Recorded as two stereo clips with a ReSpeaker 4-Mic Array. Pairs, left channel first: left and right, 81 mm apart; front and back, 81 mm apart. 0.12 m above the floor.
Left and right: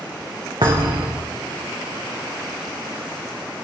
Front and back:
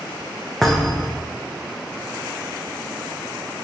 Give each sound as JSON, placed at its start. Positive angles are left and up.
{"t": 0.6, "sound": "a thud", "azimuth_deg": -85, "distance_m": 3.0}